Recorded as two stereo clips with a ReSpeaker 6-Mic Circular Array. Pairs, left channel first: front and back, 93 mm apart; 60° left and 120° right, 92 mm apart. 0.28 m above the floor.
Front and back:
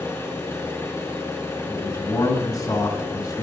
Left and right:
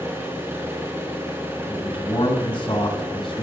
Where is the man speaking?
40° left, 3.5 m.